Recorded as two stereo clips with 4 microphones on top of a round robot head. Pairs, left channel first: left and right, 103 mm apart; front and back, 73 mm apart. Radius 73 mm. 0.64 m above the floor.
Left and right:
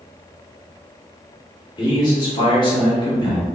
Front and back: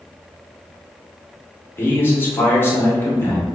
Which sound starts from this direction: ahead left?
A man speaking, at 1.8 s.